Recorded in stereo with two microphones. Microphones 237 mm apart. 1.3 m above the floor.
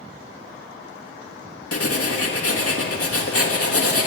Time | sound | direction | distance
1.7 | writing | 70° left (ahead or behind) | 1.3 m